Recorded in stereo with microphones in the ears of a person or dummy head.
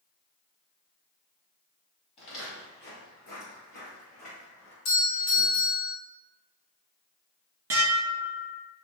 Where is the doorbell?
70° left (ahead or behind), 1.2 m.